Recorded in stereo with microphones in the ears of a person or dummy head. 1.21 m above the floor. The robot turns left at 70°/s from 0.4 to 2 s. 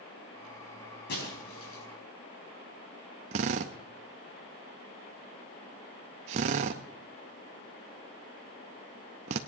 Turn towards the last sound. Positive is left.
turn(degrees=-35)  # may be behind; listen again after turning